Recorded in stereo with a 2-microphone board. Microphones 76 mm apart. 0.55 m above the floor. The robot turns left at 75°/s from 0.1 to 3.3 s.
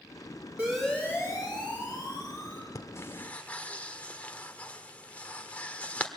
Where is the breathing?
50° left (ahead or behind), 1.5 m; by 6.1 s 20° left (ahead or behind), 1.5 m.